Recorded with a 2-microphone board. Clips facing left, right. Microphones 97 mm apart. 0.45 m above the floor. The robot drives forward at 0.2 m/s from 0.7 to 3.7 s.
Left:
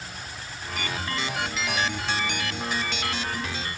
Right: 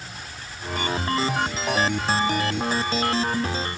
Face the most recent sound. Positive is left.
No sound to turn to.